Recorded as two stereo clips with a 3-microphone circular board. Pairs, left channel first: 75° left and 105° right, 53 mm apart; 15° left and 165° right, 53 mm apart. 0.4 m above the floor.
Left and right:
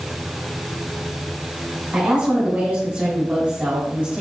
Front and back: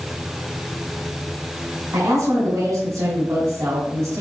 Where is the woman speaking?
170° right, 3 m.